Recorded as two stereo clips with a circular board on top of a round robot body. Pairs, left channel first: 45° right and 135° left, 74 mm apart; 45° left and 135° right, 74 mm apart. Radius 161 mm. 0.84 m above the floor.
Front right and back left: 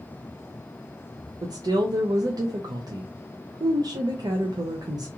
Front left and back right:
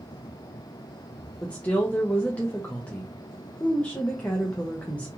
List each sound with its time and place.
1.4 s a woman speaking: 115° left, 0.6 m